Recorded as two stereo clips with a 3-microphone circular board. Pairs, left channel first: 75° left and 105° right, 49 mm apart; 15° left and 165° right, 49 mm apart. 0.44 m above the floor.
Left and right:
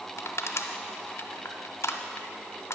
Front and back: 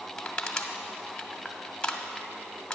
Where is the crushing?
90° left, 0.8 m.